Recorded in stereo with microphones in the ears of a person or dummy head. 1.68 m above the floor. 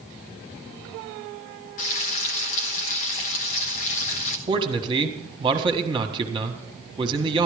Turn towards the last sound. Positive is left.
turn(degrees=-30)  # may be behind; listen again after turning